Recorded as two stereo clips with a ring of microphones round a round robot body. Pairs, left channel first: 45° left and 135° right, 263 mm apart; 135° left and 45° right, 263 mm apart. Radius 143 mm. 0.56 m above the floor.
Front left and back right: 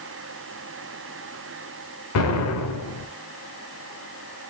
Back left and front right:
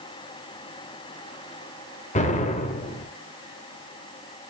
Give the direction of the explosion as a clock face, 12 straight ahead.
10 o'clock.